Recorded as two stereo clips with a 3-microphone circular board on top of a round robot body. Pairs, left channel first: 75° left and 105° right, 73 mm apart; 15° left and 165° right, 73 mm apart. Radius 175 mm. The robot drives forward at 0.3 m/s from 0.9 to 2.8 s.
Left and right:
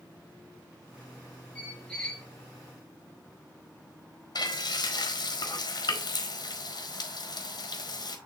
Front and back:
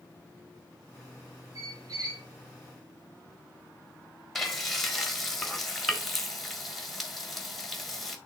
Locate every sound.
1.6 s a squeak: 155° left, 0.5 m; by 2.3 s 160° left, 0.7 m
4.3 s frying: 105° left, 1.7 m